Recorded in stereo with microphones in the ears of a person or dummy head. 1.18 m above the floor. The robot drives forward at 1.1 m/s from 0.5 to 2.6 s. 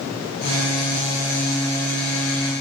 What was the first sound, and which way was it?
Only background noise.